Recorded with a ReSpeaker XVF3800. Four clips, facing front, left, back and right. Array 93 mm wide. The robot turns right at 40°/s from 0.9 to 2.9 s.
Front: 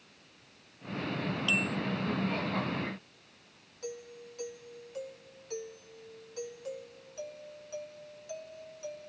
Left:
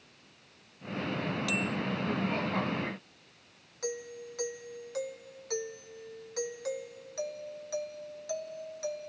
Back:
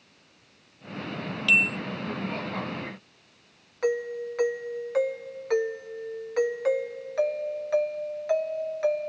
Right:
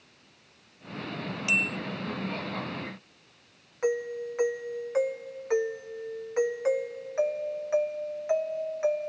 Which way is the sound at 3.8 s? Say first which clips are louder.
Right 10 dB, back 16 dB; 150° right.